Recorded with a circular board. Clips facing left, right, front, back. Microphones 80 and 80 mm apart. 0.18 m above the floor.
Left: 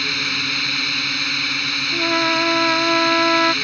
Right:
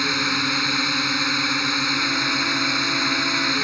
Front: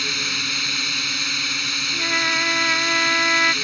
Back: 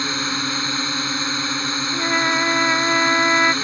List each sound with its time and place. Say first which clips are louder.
0.0 s a drone: right 3 dB, back 5 dB; 145° right
1.9 s a trumpet: left 5 dB, back 3 dB; 110° left